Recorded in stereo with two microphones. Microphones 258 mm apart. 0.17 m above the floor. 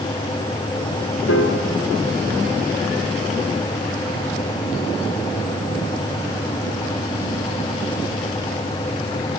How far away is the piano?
About 1.3 m.